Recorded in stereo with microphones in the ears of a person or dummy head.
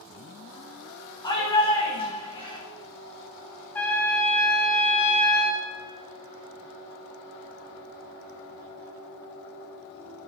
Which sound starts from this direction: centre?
A trumpet, at 3.8 s.